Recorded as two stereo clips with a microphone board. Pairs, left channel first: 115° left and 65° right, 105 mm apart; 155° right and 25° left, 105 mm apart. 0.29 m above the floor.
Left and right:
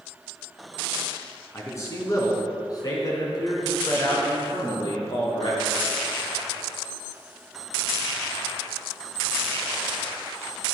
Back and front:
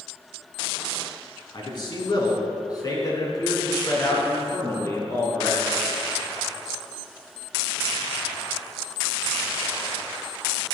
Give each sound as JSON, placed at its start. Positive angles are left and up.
{"t": 1.5, "sound": "a man speaking", "azimuth_deg": 170, "distance_m": 3.0}